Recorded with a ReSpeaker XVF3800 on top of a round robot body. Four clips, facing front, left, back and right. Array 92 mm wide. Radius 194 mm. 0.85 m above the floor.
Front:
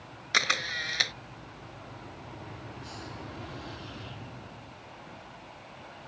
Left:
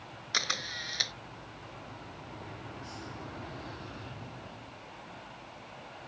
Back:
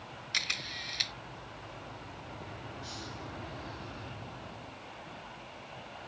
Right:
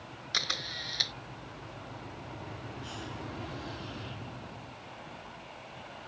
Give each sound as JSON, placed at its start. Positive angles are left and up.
{"t": 0.3, "sound": "a camera shutter", "azimuth_deg": 10}
{"t": 2.8, "sound": "a hiss", "azimuth_deg": -55}